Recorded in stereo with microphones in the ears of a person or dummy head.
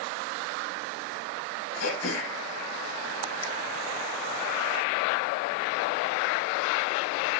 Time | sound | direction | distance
1.8 | throat clearing | 75° left (ahead or behind) | 1.7 m